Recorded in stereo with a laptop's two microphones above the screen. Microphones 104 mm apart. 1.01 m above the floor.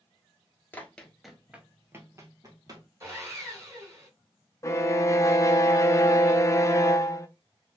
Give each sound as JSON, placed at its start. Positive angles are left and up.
{"t": 0.7, "sound": "running footsteps", "side_deg": 20, "distance_m": 1.0}
{"t": 3.0, "sound": "sawing", "side_deg": -30, "distance_m": 1.8}
{"t": 4.6, "sound": "a violin", "side_deg": 30, "distance_m": 0.6}